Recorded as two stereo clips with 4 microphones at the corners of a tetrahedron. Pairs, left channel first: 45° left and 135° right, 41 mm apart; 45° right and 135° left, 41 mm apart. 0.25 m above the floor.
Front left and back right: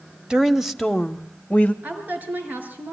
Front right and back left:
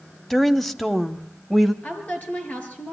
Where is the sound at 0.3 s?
105° right, 0.9 m; by 1.7 s 40° left, 1.1 m.